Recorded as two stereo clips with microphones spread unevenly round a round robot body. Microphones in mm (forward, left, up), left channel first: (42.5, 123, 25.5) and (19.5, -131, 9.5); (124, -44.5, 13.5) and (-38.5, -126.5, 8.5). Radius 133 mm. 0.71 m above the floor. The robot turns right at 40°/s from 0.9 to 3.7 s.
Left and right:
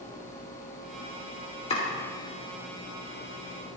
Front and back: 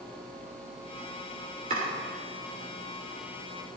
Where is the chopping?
155° left, 2.5 m; by 1.9 s 160° left, 2.5 m.